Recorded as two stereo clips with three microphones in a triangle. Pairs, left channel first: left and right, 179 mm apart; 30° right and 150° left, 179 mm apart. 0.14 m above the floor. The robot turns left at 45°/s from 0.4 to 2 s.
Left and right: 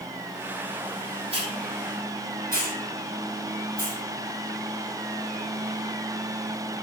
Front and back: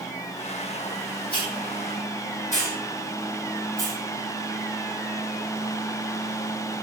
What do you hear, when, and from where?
1.3 s a hiss: 35° right, 5.5 m; by 4.0 s 65° right, 5.5 m